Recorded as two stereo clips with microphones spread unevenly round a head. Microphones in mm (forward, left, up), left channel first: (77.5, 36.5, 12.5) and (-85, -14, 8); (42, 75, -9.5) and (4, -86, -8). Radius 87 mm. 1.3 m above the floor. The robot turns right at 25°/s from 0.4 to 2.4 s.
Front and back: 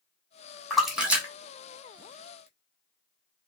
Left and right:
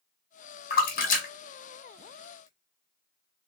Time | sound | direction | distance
0.7 | a splash | 105° left | 1.1 m